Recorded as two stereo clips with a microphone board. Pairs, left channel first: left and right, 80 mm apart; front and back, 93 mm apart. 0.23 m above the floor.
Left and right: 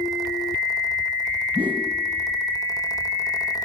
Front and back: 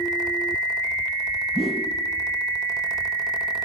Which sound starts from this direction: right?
A whoosh, at 1.6 s.